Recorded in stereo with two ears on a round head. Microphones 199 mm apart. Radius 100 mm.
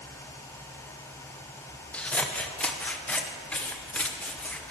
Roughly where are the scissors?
Centre.